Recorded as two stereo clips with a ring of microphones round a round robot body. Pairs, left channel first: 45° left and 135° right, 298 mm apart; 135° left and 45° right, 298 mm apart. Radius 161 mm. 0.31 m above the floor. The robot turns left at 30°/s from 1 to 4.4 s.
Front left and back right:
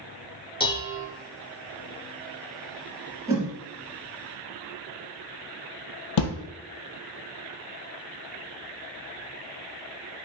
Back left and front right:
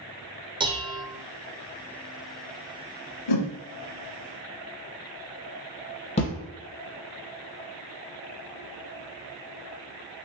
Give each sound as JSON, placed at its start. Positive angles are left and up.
{"t": 0.6, "sound": "dishes clattering", "azimuth_deg": 0, "distance_m": 0.7}
{"t": 3.3, "sound": "a whoosh", "azimuth_deg": 145, "distance_m": 0.8}
{"t": 6.2, "sound": "a thud", "azimuth_deg": 65, "distance_m": 0.7}